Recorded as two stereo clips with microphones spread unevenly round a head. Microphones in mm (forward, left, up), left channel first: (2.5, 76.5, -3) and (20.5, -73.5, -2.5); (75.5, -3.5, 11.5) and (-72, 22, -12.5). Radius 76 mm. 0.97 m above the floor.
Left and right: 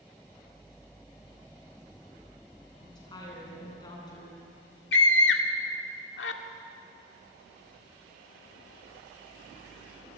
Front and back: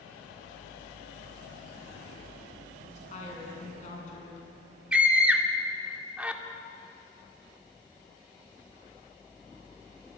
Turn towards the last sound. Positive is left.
turn(degrees=90)